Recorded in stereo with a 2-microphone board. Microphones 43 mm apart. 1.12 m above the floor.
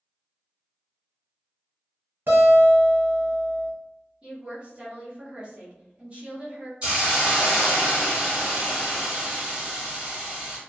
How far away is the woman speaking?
About 1.3 m.